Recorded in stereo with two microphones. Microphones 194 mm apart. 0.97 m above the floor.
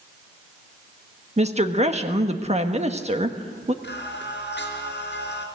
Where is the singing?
70° left (ahead or behind), 3.5 m.